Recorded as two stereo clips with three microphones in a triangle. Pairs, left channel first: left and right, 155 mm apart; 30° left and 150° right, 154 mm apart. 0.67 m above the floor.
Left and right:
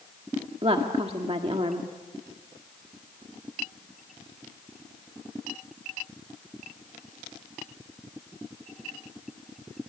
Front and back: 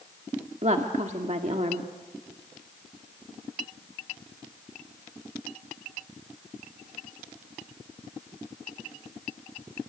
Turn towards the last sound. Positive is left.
turn(degrees=-130)